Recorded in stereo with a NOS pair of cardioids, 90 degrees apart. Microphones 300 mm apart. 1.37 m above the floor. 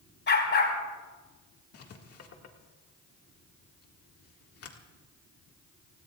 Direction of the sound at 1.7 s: 50° left.